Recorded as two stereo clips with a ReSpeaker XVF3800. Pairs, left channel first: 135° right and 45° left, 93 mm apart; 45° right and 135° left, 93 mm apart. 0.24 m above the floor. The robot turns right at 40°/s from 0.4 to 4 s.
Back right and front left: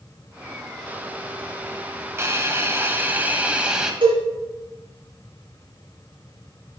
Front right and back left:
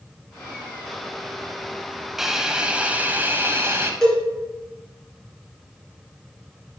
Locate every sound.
2.2 s a hiss: 50° left, 0.7 m; by 3.9 s 120° left, 0.7 m
4.0 s a cowbell: 35° left, 2.5 m